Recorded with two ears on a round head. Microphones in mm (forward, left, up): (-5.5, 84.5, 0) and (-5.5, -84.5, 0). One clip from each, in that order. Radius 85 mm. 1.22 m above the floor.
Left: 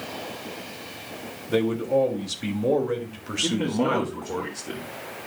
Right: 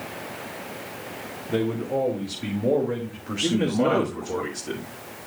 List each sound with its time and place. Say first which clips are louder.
1.5 s a man speaking: left 3 dB; 40° left (ahead or behind), 3 m; by 4.4 s 10° left (ahead or behind), 1.7 m
3.4 s a man speaking: right 2 dB; centre (ahead or behind), 1.4 m